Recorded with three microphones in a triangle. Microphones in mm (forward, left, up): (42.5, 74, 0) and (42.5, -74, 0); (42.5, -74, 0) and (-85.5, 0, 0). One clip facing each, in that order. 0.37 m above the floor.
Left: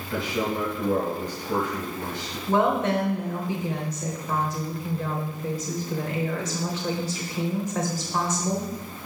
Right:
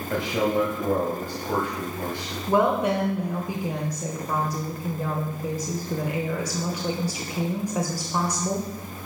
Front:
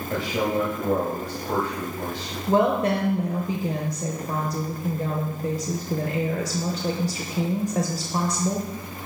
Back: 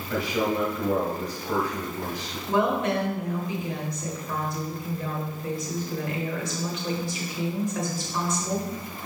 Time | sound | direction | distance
0.1 | a man speaking | 85° right | 1.6 m
2.5 | a woman speaking | 20° right | 1.0 m